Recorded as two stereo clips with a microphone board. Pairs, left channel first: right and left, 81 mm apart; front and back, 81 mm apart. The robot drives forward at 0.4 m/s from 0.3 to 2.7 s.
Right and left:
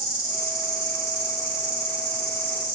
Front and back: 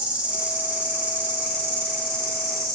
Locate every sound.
0.0 s an insect: 115° right, 1.8 m; by 2.8 s 145° right, 2.5 m